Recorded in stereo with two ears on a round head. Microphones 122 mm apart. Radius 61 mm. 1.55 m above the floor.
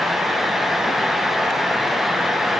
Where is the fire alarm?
I don't hear a fire alarm.